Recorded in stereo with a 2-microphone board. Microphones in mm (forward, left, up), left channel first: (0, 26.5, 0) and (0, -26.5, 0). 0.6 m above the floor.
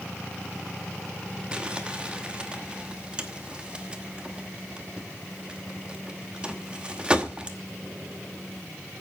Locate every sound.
1.5 s crumpling: 20° right (ahead or behind), 1.0 m